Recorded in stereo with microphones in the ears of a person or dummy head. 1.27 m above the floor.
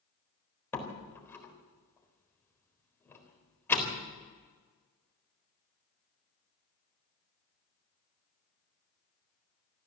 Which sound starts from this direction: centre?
A door slam, at 0.7 s.